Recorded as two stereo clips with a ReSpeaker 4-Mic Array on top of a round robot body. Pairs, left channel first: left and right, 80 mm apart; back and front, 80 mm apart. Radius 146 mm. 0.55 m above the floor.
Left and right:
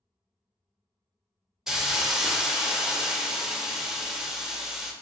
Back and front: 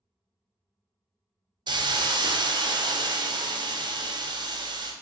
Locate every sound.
1.7 s a hiss: 10° right, 0.5 m